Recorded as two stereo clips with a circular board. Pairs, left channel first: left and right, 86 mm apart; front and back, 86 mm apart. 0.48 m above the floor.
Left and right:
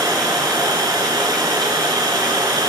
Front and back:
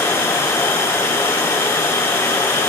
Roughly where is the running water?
Ahead right.